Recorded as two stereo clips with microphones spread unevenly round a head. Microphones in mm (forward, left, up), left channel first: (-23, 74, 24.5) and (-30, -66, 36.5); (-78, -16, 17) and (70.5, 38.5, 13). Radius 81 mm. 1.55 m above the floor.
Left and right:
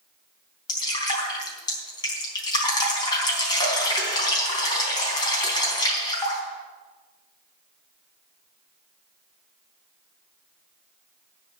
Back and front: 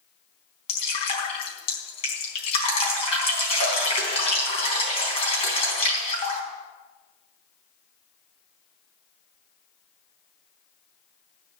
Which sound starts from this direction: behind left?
Dripping, at 0.7 s.